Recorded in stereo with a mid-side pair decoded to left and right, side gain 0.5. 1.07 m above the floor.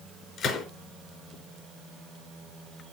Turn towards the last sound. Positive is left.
turn(degrees=60)